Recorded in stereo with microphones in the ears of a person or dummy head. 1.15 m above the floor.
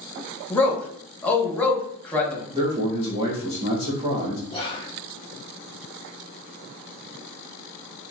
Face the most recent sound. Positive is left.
turn(degrees=25)  # may be behind; listen again after turning